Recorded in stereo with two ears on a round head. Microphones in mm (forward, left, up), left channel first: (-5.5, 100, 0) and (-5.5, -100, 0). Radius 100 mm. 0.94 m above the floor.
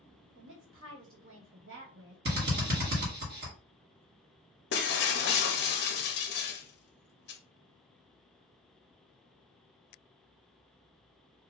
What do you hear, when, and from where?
0.3 s a woman speaking: 55° right (ahead or behind), 1.4 m
2.2 s a drill: 45° right (ahead or behind), 1.6 m
4.7 s breaking glass: 50° left (ahead or behind), 0.6 m